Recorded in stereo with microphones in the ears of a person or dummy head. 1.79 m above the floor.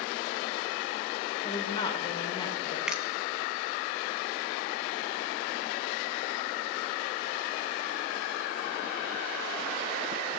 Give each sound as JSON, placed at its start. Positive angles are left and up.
{"t": 1.4, "sound": "a woman speaking", "side_deg": 25, "distance_m": 2.5}
{"t": 2.9, "sound": "a finger snap", "side_deg": -5, "distance_m": 0.9}